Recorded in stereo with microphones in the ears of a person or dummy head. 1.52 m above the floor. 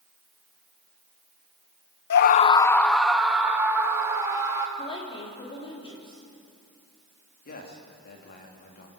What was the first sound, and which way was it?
A scream, 60° left (ahead or behind).